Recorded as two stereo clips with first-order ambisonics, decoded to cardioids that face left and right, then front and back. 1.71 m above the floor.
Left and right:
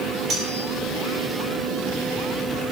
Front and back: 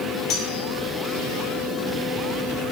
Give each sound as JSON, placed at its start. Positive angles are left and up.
{"t": 0.3, "sound": "cutlery clinking", "azimuth_deg": -30, "distance_m": 3.5}